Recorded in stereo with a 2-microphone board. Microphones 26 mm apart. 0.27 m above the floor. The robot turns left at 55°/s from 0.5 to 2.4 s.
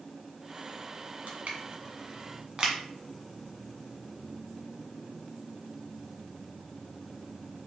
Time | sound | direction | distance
1.3 | crushing | 70° right (ahead or behind) | 0.9 m